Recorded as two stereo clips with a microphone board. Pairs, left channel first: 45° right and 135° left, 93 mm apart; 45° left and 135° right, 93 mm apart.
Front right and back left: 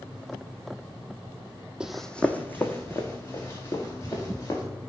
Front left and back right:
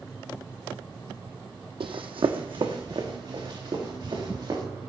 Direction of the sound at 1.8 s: 145° right.